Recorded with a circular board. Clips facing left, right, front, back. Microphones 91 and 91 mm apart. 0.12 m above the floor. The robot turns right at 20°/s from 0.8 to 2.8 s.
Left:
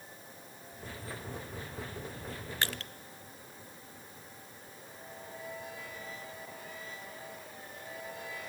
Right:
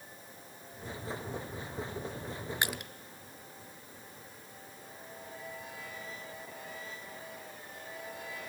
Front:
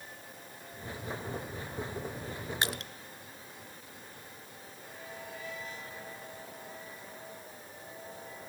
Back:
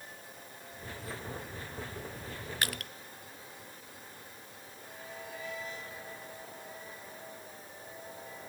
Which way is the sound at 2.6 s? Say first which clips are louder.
Even, front 1 dB; 40° right.